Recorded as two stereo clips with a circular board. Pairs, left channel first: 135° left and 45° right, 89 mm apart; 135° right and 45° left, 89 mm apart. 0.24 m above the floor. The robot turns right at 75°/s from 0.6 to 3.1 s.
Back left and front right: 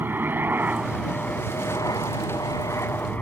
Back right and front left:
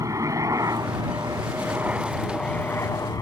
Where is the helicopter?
15° left; by 3.2 s 160° right.